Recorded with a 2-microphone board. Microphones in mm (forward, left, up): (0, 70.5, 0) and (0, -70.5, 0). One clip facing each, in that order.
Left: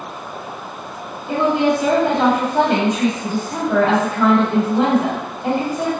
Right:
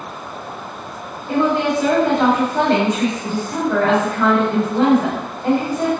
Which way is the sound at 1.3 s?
15° left (ahead or behind).